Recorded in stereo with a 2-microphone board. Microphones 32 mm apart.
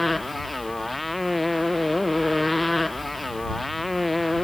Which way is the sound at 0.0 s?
Centre (ahead or behind).